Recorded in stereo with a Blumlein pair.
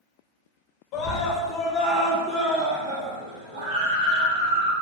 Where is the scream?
45° left, 1.0 m; by 4.7 s 70° right, 1.9 m.